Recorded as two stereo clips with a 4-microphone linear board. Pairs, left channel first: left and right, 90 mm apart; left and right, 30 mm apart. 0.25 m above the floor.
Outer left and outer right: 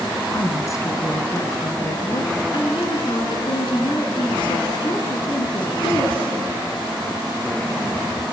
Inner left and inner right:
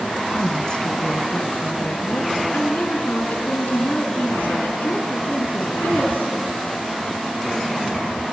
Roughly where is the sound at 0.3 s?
Left.